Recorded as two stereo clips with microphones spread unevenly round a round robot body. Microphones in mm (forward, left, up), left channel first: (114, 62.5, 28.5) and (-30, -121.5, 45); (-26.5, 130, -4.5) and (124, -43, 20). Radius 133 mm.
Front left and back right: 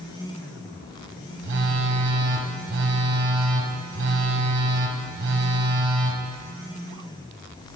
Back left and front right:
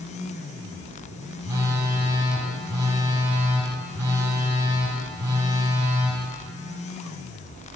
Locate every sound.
1.4 s a phone buzzing: 110° right, 1.1 m